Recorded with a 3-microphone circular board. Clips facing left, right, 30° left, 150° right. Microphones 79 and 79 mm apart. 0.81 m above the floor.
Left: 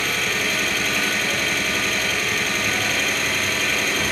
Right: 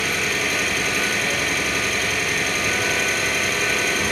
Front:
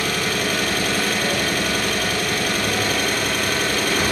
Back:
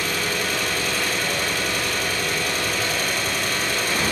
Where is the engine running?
5° right, 7 m.